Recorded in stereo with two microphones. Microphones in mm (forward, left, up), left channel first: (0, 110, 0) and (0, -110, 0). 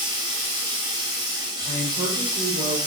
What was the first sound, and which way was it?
Running water, 20° right (ahead or behind).